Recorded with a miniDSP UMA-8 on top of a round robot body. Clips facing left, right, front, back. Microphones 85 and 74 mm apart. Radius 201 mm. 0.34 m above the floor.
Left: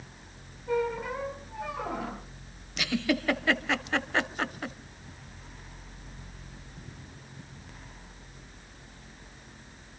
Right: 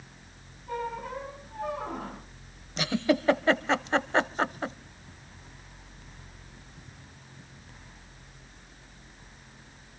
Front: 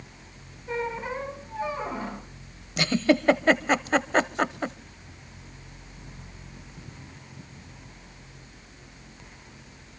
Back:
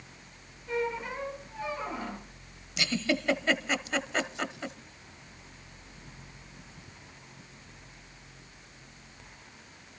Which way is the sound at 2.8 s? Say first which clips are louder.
Right 3 dB, front 8 dB; 35° right.